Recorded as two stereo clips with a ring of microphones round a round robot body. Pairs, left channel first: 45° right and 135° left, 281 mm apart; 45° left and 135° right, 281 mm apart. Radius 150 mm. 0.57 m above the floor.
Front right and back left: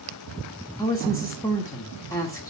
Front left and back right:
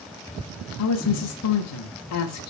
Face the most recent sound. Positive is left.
turn(degrees=35)